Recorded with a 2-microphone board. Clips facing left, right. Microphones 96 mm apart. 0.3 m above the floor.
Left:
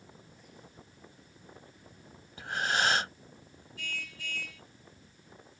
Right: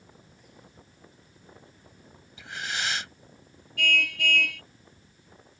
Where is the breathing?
45° left (ahead or behind).